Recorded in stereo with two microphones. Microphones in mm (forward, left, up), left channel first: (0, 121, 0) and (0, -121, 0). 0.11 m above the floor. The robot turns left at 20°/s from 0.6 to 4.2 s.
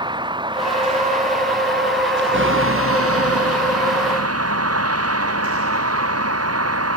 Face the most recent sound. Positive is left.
turn(degrees=-80)